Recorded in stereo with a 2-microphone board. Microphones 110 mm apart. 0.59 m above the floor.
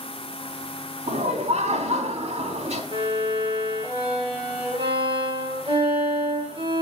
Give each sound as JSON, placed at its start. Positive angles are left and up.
{"t": 1.1, "sound": "laughter", "side_deg": -70, "distance_m": 4.0}
{"t": 2.9, "sound": "a violin", "side_deg": -55, "distance_m": 9.5}